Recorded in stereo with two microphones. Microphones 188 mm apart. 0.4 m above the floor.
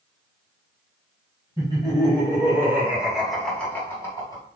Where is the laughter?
20° right (ahead or behind), 2.0 m; by 4.4 s 20° left (ahead or behind), 1.6 m.